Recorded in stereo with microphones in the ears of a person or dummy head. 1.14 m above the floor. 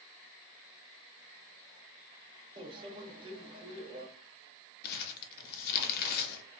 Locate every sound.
2.6 s a microwave: 30° right (ahead or behind), 0.6 m
4.8 s crumpling: 55° left (ahead or behind), 0.6 m